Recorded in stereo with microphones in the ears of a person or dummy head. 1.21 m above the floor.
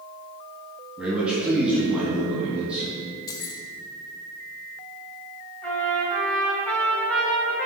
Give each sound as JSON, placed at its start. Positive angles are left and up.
{"t": 1.0, "sound": "a man speaking", "side_deg": -10, "distance_m": 2.5}
{"t": 3.3, "sound": "keys jangling", "side_deg": 20, "distance_m": 0.7}
{"t": 5.6, "sound": "a trumpet", "side_deg": 15, "distance_m": 2.5}